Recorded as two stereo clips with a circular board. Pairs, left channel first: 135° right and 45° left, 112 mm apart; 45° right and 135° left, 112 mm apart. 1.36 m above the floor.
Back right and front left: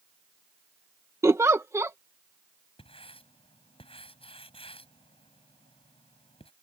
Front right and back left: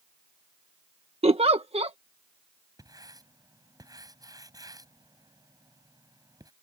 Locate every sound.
1.2 s a giggle: 110° left
2.8 s writing: 170° right